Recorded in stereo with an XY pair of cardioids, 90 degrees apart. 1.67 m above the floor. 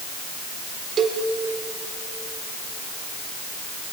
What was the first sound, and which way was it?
A cowbell, 55° right.